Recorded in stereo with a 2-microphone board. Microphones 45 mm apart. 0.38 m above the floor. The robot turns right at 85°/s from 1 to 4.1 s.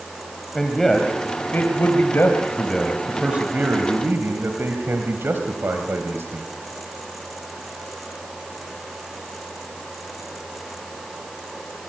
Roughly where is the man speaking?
Centre.